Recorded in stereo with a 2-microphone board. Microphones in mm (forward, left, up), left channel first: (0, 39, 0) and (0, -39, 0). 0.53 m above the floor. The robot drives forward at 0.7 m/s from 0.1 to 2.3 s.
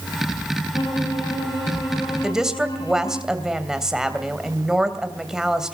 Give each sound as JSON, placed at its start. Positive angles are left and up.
{"t": 0.7, "sound": "a violin", "side_deg": 75, "distance_m": 6.5}
{"t": 2.2, "sound": "a woman speaking", "side_deg": -5, "distance_m": 2.5}